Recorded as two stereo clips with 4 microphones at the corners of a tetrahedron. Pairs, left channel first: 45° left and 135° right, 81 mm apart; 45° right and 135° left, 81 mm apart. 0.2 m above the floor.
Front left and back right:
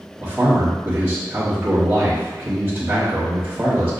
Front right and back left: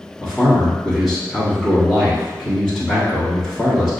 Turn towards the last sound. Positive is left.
turn(degrees=-135)